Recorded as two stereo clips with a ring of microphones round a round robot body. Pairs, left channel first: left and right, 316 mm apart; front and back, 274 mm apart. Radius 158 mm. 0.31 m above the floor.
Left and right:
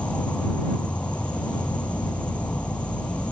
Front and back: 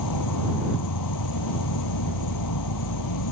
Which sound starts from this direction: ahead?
An insect, at 0.0 s.